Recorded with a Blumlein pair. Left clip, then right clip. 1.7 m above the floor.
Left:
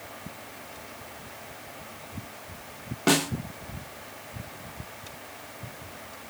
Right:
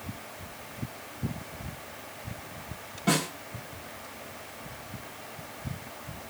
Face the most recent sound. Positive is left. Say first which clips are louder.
# left 4 dB
turn(degrees=55)